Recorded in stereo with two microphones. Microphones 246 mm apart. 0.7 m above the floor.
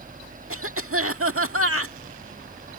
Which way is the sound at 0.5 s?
60° right (ahead or behind).